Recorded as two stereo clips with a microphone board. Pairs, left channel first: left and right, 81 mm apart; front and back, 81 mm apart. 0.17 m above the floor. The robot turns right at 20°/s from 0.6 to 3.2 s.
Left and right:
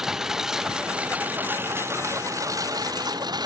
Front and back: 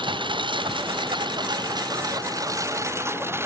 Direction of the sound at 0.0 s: 175° right.